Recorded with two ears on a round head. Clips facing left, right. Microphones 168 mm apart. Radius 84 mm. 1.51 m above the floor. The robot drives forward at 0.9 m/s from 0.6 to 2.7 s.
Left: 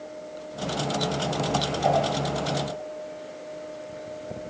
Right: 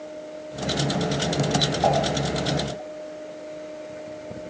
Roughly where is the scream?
No scream in this recording.